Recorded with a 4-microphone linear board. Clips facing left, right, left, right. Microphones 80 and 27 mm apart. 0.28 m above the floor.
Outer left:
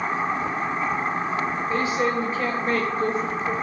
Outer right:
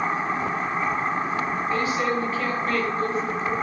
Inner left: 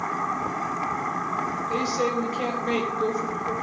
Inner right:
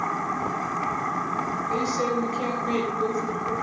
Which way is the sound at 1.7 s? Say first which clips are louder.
Outer left 1 dB, even; 25° left (ahead or behind).